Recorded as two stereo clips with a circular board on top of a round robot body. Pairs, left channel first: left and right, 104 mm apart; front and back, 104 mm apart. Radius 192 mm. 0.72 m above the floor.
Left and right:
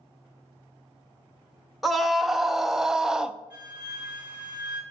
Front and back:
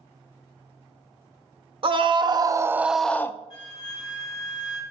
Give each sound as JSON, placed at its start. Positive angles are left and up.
{"t": 1.8, "sound": "a scream", "azimuth_deg": 180, "distance_m": 0.8}
{"t": 3.5, "sound": "a flute", "azimuth_deg": -10, "distance_m": 3.0}